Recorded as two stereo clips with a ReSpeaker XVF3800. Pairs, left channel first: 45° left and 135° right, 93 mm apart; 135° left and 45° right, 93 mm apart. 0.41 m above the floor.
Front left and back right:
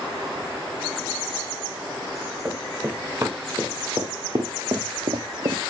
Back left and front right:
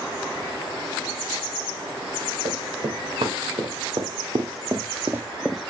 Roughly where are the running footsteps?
Ahead right.